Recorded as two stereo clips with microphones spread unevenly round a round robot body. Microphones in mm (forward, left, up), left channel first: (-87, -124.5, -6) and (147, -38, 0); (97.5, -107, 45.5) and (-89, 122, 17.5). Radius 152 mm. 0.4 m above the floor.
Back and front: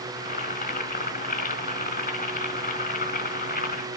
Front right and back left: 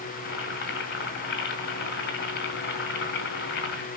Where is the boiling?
105° right, 3.5 m.